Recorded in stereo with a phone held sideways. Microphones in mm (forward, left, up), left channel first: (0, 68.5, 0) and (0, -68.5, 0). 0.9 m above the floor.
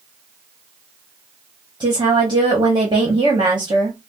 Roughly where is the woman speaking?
Right.